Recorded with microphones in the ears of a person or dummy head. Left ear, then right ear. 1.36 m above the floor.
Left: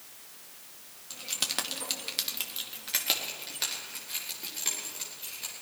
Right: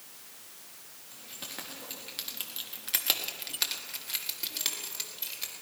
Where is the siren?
No siren in this recording.